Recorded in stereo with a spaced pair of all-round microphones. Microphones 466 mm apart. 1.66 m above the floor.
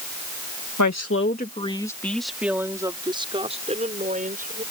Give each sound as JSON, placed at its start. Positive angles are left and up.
{"t": 0.8, "sound": "a woman speaking", "side_deg": 40}